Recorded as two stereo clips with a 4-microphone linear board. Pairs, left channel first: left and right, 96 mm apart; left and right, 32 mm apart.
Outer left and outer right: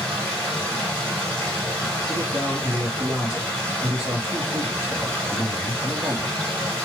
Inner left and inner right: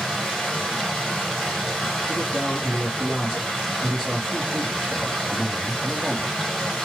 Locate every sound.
0.0 s running water: 10° left (ahead or behind), 2 m
2.1 s a man speaking: 10° right (ahead or behind), 1.2 m